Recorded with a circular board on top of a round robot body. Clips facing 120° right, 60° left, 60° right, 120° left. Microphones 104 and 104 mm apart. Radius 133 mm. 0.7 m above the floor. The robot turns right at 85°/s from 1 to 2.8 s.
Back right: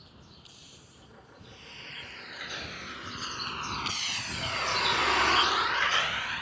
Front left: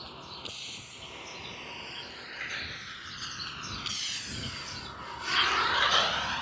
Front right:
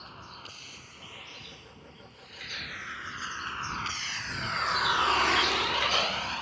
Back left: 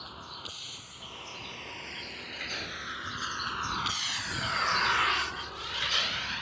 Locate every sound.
0.0 s a vehicle: 40° left; by 6.4 s 5° right